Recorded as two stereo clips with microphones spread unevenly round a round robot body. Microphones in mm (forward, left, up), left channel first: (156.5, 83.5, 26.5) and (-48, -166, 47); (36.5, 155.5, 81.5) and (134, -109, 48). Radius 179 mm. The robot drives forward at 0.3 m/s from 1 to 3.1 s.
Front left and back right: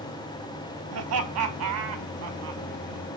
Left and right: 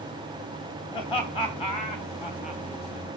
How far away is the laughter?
About 2 m.